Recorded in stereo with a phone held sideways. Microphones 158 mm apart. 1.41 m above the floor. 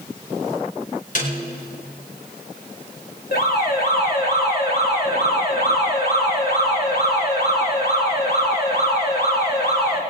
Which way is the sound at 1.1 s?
55° left (ahead or behind).